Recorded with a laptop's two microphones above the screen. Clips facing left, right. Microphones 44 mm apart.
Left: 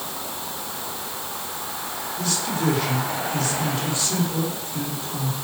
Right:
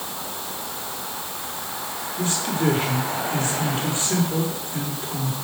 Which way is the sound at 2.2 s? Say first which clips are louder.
Right 2 dB; 30° right (ahead or behind).